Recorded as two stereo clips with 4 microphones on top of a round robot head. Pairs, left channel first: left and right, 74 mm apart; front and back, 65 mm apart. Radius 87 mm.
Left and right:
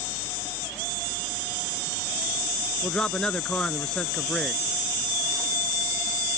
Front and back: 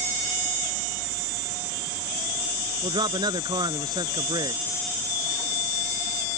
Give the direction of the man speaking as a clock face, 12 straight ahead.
6 o'clock.